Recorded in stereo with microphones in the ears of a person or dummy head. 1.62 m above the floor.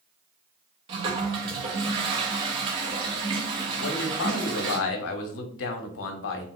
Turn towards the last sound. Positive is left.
turn(degrees=65)  # may be behind; listen again after turning